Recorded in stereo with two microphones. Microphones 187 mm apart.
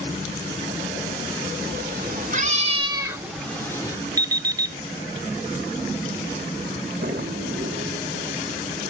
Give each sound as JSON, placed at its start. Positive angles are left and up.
{"t": 1.6, "sound": "a cat meowing", "side_deg": -60, "distance_m": 1.6}
{"t": 4.2, "sound": "an alarm clock", "side_deg": -20, "distance_m": 0.6}
{"t": 7.0, "sound": "a drawer", "side_deg": -70, "distance_m": 0.8}